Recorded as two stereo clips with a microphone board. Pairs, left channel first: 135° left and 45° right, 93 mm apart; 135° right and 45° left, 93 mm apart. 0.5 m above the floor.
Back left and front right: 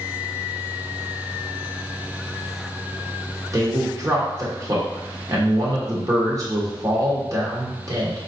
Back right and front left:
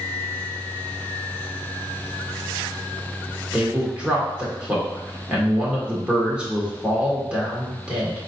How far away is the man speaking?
About 1.5 m.